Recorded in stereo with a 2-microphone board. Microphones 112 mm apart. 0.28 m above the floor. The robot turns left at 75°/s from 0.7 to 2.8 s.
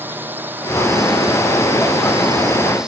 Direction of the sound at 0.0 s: 15° right.